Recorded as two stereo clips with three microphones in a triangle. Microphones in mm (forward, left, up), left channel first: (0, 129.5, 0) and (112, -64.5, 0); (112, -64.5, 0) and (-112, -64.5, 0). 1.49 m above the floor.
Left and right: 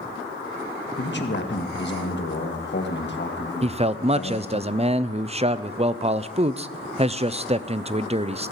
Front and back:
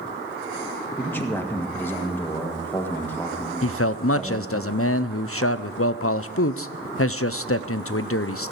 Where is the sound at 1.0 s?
80° left, 1.5 m.